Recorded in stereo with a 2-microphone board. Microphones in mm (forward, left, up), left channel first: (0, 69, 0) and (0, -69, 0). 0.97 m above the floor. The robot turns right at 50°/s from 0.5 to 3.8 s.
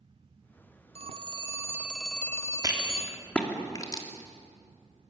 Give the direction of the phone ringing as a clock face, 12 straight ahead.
2 o'clock.